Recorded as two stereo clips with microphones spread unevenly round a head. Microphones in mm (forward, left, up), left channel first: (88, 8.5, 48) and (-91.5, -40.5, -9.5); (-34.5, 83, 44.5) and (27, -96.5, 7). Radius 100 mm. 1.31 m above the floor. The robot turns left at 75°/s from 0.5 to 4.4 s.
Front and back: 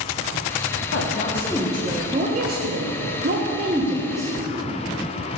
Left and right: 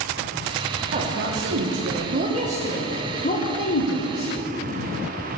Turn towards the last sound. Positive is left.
turn(degrees=80)